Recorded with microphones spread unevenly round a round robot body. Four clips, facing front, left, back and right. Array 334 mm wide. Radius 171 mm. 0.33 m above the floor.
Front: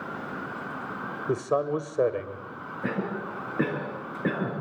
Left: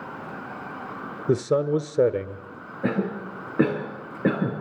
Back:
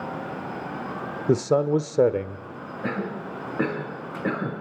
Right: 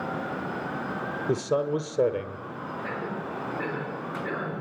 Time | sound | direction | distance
1.3 | a man speaking | 135° left | 1.4 m
2.8 | a cough | 85° left | 5.5 m